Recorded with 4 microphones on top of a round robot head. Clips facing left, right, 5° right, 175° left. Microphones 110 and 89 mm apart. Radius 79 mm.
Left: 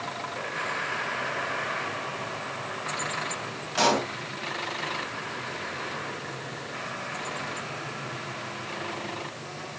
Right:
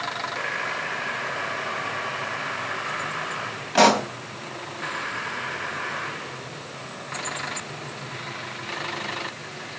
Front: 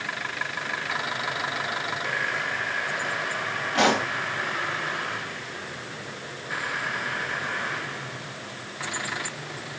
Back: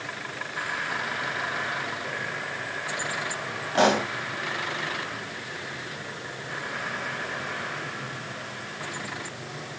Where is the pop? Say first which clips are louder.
Right 6 dB, back 1 dB; 120° right, 3.5 m.